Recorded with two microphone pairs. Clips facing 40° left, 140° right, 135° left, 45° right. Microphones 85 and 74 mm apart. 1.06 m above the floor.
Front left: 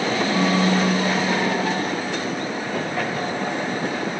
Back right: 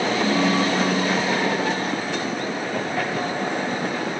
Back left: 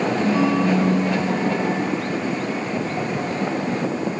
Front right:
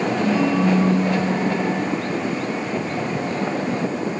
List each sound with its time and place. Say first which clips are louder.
0.1 s a ringtone: front left 1 dB, even; 75° left, 3 m